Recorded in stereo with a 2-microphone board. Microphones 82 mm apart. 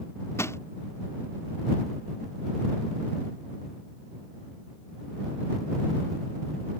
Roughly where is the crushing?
Left.